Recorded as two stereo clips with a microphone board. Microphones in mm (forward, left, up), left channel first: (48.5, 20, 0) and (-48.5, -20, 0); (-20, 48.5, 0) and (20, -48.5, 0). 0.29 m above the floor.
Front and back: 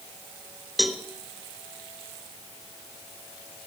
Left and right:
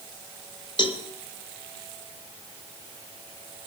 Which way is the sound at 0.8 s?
115° left.